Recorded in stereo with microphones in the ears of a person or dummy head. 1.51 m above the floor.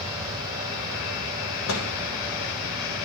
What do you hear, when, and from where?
1.7 s a microwave: 75° left (ahead or behind), 1.3 m